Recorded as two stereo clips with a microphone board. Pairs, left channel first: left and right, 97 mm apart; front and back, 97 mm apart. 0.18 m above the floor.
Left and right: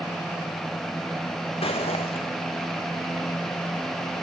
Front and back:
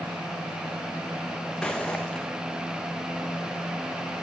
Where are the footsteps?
85° left, 1.1 m.